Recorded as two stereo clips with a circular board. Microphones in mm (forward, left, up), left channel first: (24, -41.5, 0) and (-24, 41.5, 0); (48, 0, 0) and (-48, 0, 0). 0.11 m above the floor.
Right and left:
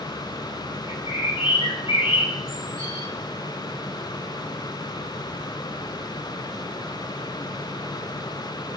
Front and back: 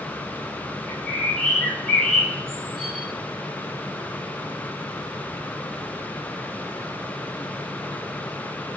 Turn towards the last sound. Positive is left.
turn(degrees=-85)